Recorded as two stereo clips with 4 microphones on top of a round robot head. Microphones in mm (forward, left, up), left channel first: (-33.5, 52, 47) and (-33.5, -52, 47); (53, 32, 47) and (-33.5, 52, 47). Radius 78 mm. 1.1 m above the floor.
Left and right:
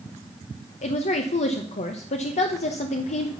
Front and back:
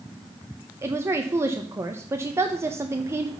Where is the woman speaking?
105° left, 0.8 m.